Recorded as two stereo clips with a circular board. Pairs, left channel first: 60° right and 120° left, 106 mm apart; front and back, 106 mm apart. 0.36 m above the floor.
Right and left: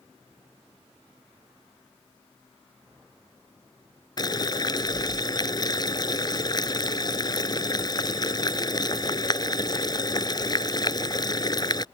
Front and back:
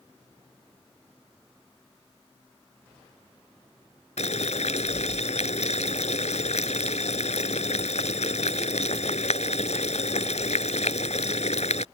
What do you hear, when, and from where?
4.2 s boiling: 10° right